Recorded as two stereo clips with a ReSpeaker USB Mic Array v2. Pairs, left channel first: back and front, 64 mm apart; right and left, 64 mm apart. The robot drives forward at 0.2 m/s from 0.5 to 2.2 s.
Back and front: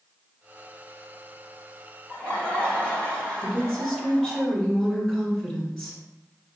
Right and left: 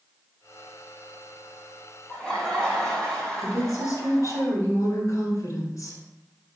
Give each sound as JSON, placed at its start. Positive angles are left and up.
{"t": 2.1, "sound": "laughter", "azimuth_deg": -155, "distance_m": 1.2}
{"t": 3.4, "sound": "a woman speaking", "azimuth_deg": -105, "distance_m": 1.7}